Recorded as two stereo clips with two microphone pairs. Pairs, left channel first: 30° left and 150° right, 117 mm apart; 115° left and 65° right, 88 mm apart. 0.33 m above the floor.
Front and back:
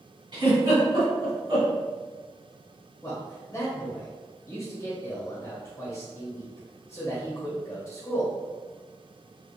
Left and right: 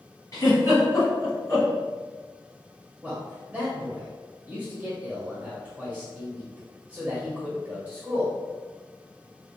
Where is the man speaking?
5° right, 1.2 m.